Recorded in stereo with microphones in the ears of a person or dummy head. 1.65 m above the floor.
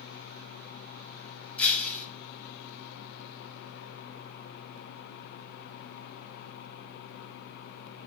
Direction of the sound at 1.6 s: 10° left (ahead or behind).